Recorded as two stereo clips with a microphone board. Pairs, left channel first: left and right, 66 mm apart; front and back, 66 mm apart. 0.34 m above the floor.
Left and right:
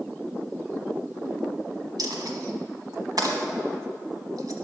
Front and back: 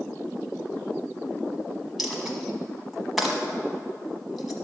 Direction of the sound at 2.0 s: 90° right.